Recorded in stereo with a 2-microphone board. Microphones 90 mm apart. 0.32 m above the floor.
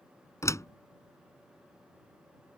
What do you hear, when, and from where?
0.4 s a door slam: 35° left (ahead or behind)